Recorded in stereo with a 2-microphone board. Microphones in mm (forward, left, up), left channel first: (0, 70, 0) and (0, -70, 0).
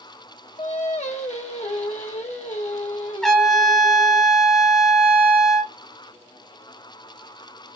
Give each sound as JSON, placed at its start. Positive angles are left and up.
{"t": 0.6, "sound": "singing", "side_deg": 55, "distance_m": 1.3}
{"t": 3.2, "sound": "a trumpet", "side_deg": 5, "distance_m": 1.4}